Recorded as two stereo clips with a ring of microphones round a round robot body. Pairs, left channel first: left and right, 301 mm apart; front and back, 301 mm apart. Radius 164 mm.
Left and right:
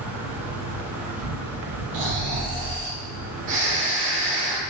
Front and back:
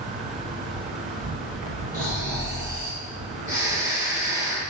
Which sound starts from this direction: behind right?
An insect, at 0.0 s.